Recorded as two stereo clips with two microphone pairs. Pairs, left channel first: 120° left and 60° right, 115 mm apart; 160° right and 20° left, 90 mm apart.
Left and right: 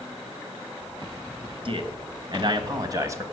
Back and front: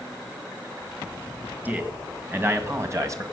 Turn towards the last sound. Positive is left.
turn(degrees=-5)